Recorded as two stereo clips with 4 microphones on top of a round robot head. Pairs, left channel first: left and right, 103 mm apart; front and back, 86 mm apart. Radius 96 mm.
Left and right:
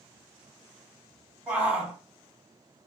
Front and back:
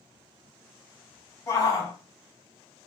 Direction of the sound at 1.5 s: 20° right.